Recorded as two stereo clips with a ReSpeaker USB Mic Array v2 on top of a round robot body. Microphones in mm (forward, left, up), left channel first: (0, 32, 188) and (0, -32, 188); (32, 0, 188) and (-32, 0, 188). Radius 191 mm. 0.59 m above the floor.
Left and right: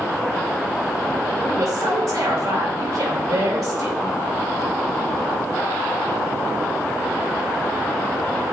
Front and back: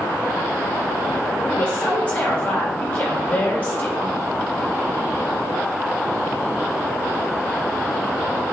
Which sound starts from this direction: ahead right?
A woman speaking, at 1.4 s.